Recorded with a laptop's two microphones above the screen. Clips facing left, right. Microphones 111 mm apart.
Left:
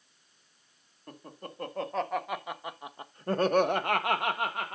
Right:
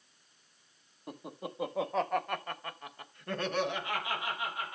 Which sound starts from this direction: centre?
Laughter, at 1.1 s.